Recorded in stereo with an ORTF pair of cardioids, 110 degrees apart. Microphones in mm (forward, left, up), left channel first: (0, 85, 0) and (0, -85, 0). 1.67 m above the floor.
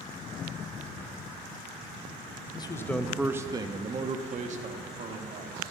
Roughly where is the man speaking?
Ahead left.